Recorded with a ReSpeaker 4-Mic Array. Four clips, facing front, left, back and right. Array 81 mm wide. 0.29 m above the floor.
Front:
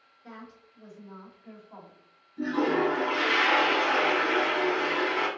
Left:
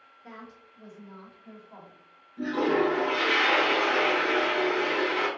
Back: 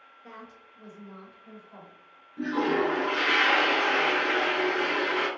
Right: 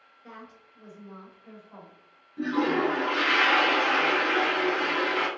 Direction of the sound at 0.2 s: 175° right.